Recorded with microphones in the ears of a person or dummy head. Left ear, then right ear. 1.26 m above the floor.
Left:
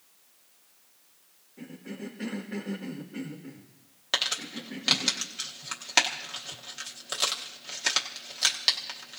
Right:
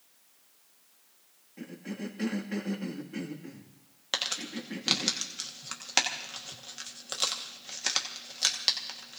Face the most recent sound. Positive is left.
turn(degrees=10)  # may be behind; listen again after turning